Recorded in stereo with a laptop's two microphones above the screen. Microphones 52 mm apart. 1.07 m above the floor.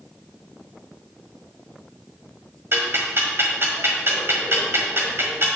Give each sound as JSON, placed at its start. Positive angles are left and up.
{"t": 2.7, "sound": "ticking", "side_deg": -55, "distance_m": 1.6}